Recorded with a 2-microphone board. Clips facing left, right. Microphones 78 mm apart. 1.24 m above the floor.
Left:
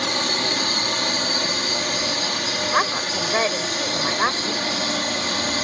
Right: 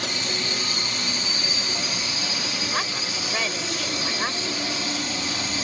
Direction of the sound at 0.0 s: 55° left (ahead or behind).